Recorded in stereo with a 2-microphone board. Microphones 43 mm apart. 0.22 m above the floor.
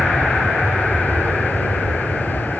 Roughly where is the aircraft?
Left.